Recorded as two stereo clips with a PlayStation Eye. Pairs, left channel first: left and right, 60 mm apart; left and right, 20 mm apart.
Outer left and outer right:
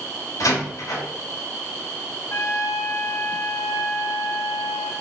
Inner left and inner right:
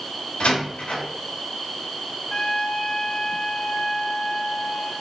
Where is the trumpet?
60° left (ahead or behind), 1.2 m.